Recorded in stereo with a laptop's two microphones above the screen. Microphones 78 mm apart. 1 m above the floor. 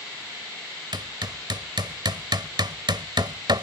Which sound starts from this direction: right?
Hammering, at 0.9 s.